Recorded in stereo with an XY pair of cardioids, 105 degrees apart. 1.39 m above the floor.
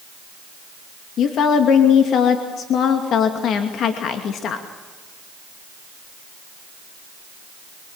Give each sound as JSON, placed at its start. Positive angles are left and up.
{"t": 1.2, "sound": "a woman speaking", "azimuth_deg": 65, "distance_m": 2.5}